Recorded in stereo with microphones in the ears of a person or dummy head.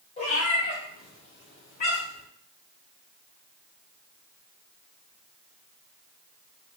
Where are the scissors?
No scissors in this recording.